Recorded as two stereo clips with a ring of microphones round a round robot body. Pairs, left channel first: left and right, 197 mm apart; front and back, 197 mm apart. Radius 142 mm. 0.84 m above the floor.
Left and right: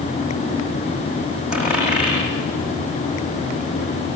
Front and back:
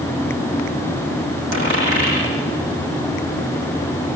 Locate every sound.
1.5 s a dropped coin: 175° right, 8.5 m